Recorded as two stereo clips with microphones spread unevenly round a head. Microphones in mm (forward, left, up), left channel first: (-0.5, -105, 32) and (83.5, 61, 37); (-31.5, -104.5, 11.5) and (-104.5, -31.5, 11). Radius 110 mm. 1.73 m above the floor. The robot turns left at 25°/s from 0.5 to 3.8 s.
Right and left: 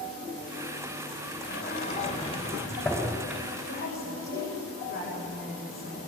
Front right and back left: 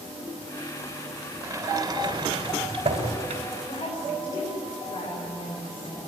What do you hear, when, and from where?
1.4 s a sliding door: 160° right, 4 m; by 3.4 s 150° left, 4 m
3.7 s a woman speaking: 75° right, 8.5 m; by 6.1 s 80° right, 8.5 m